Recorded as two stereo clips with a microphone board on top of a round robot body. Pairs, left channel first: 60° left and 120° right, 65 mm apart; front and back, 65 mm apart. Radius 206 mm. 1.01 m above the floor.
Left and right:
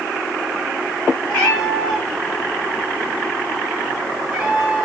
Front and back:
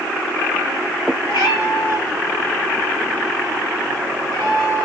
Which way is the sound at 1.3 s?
5° left.